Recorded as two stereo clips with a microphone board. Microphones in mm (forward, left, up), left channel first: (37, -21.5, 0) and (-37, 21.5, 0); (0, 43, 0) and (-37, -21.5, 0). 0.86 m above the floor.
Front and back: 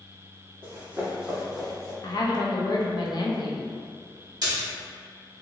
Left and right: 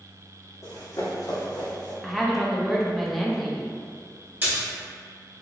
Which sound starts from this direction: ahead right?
A woman speaking, at 2.0 s.